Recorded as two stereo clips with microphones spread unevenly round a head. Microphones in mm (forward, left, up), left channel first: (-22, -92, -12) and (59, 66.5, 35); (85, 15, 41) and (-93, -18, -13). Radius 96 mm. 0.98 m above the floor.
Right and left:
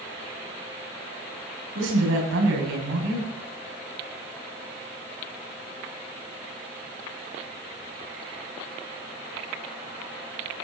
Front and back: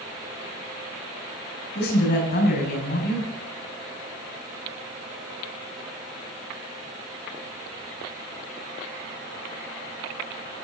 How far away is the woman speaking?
About 7.5 m.